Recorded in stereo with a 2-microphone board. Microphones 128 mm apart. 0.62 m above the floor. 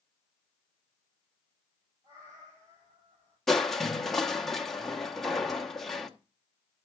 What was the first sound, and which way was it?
A cat meowing, 45° right (ahead or behind).